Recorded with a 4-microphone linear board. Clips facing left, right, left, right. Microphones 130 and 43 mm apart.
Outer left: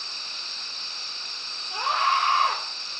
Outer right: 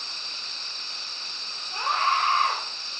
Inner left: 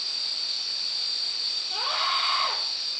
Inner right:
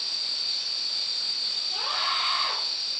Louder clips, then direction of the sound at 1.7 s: Outer left 1 dB, inner left 2 dB; 15° left (ahead or behind).